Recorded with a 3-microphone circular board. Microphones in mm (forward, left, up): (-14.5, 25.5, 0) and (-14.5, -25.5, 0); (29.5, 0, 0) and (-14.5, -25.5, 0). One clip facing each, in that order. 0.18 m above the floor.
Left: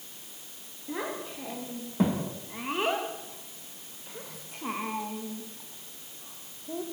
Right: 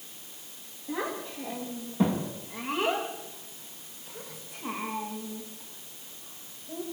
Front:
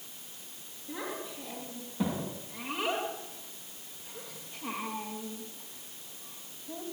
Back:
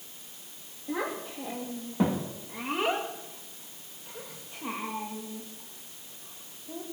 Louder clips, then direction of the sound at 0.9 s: Right 1 dB, back 6 dB; 165° left.